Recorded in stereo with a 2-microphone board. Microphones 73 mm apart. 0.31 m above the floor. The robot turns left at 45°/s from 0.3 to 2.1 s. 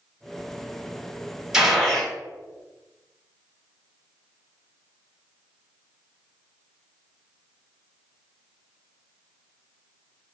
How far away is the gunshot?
About 1.2 m.